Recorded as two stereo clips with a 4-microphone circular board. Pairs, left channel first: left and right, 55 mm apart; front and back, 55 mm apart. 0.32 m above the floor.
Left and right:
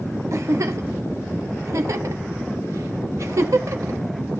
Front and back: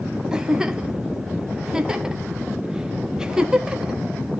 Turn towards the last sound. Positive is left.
turn(degrees=-100)